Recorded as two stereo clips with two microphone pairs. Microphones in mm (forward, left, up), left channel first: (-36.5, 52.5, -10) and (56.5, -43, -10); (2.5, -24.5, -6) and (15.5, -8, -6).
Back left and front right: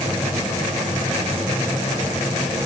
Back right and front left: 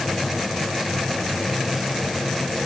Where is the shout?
I don't hear a shout.